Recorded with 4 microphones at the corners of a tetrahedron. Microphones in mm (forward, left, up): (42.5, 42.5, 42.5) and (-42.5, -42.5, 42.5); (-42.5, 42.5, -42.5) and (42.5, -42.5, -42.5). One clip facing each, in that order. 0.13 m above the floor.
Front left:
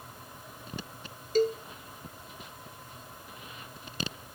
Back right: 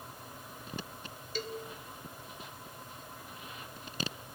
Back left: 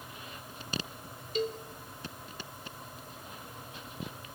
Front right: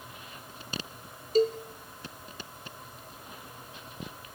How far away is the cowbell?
About 1.3 m.